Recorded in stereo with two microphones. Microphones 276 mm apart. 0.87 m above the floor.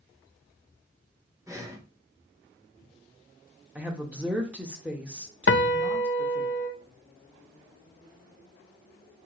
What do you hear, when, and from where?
1.5 s breathing: 10° right (ahead or behind), 1.0 m
3.8 s a woman speaking: 5° right (ahead or behind), 1.0 m
5.5 s a piano: 50° left (ahead or behind), 0.6 m